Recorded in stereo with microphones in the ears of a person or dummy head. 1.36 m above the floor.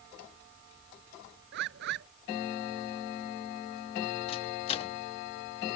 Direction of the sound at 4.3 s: 35° left (ahead or behind).